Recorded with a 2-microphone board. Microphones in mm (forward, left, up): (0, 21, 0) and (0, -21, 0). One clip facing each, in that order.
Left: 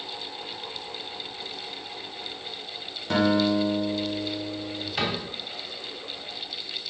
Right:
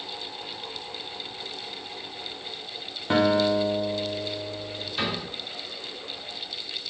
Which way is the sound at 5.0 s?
55° left (ahead or behind).